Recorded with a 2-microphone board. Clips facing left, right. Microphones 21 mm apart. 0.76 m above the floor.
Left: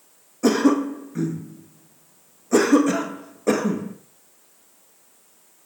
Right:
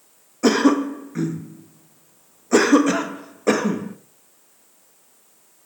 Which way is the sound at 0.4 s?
25° right (ahead or behind).